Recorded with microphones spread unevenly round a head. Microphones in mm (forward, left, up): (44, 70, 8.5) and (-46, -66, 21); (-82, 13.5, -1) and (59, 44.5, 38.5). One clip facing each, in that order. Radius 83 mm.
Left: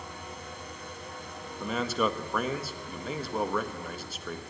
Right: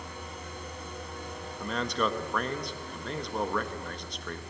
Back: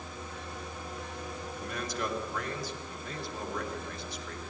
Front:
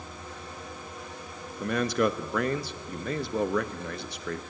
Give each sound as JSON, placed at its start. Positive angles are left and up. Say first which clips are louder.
{"t": 1.6, "sound": "a man speaking", "louder": "left 2 dB, front 11 dB", "azimuth_deg": -25, "distance_m": 1.2}